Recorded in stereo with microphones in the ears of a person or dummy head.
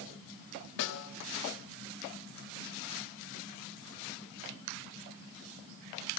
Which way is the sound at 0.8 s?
65° left (ahead or behind).